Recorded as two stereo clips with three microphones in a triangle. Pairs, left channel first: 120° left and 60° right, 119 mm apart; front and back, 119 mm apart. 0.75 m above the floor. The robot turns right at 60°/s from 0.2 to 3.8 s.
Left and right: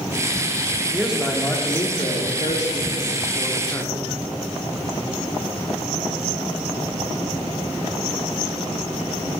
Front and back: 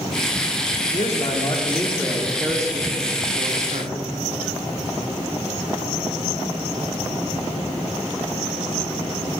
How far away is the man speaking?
About 1.3 m.